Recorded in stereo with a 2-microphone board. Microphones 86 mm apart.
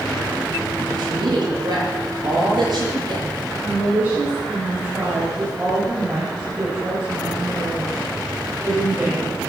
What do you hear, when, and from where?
1.0 s a woman speaking: 60° right (ahead or behind), 8.5 m
3.6 s a woman speaking: 20° right (ahead or behind), 7 m